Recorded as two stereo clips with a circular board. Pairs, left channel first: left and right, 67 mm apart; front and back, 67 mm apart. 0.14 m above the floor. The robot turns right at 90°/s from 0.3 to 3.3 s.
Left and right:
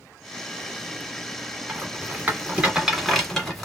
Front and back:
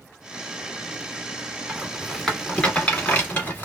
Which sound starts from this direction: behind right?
A rattle, at 1.7 s.